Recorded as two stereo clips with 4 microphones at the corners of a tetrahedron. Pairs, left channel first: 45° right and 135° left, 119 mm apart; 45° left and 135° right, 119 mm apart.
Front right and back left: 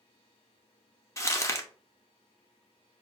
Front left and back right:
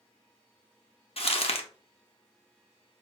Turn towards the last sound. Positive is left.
turn(degrees=20)